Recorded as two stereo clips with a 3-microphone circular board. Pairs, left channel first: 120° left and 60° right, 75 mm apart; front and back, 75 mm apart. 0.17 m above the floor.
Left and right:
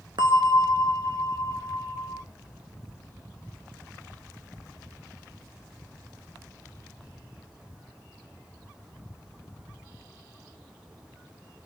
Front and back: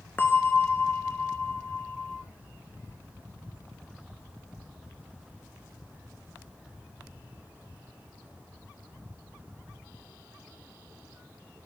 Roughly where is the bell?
Ahead right.